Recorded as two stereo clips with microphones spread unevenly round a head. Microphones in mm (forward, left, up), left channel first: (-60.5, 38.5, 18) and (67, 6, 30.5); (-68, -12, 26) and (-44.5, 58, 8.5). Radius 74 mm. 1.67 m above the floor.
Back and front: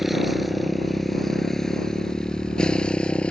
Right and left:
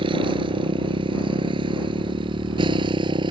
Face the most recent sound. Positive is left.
turn(degrees=85)